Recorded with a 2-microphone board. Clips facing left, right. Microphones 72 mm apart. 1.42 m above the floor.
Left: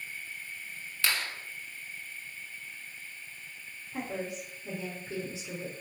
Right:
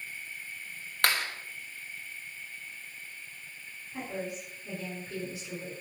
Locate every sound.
1.0 s a clap: 60° right (ahead or behind), 4.5 m
3.9 s a woman speaking: 30° left (ahead or behind), 5 m